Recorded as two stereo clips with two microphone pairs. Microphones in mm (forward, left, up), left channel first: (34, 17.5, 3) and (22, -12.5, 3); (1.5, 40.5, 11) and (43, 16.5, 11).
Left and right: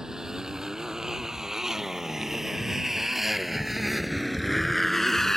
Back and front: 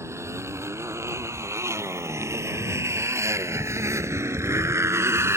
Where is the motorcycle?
45° right; by 5.4 s 10° right.